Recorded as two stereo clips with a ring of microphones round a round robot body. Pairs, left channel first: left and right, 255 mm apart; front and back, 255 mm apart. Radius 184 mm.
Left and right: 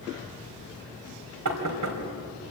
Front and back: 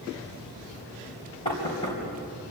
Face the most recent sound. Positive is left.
turn(degrees=-75)